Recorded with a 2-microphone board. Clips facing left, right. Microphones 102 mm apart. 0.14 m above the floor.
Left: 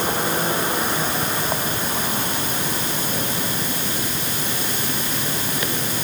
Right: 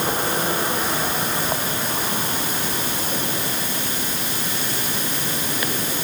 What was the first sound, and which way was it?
Only background noise.